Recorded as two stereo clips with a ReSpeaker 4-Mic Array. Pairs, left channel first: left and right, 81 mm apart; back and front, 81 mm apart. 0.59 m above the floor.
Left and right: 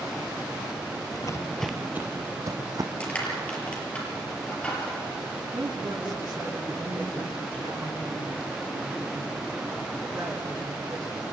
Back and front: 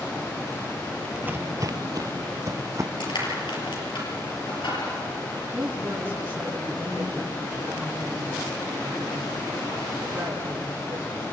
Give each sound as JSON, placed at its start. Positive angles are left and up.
{"t": 1.1, "sound": "footsteps", "azimuth_deg": 75, "distance_m": 0.9}
{"t": 3.0, "sound": "crushing", "azimuth_deg": 165, "distance_m": 5.5}
{"t": 5.5, "sound": "a woman speaking", "azimuth_deg": -65, "distance_m": 7.5}